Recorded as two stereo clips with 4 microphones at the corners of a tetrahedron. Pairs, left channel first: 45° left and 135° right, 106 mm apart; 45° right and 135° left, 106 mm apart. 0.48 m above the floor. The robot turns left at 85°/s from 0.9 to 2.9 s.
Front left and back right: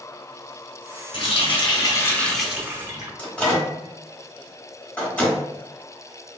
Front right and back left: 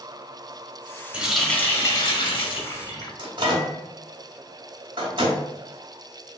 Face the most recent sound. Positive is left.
turn(degrees=120)